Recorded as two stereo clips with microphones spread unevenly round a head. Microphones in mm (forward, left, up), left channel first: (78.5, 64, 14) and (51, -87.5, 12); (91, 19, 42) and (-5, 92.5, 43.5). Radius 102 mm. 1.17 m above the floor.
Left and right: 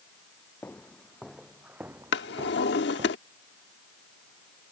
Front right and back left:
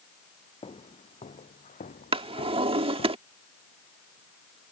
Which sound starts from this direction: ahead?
Footsteps, at 0.6 s.